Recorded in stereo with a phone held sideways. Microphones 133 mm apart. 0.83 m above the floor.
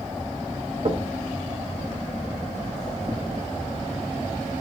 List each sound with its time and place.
0.8 s knocking: 50° right (ahead or behind), 1.0 m